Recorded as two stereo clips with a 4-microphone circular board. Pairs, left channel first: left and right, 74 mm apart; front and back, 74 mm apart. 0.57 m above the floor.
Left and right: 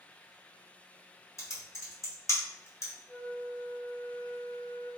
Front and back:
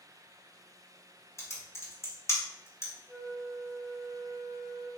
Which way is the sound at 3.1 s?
80° right.